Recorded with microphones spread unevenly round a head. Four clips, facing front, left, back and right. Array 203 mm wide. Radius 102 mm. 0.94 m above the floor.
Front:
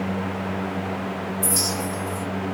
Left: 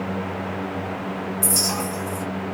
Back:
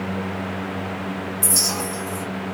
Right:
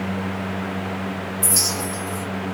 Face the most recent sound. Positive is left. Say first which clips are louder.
# left 1 dB, even
turn(degrees=135)